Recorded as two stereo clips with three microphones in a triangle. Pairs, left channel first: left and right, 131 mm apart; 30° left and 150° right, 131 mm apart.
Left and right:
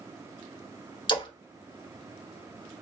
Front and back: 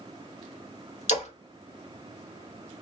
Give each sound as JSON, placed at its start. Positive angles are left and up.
{"t": 1.1, "sound": "a splash", "azimuth_deg": 45, "distance_m": 1.0}